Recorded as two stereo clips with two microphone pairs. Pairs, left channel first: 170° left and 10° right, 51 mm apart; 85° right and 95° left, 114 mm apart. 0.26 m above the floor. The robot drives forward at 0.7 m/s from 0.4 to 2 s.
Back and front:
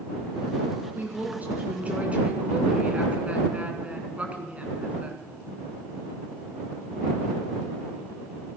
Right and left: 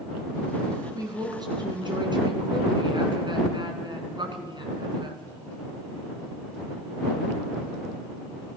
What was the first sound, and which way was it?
A woman speaking, 40° left.